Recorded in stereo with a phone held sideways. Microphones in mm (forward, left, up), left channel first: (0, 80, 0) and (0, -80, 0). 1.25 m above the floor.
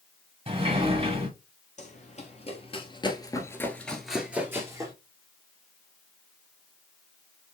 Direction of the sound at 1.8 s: 50° left (ahead or behind).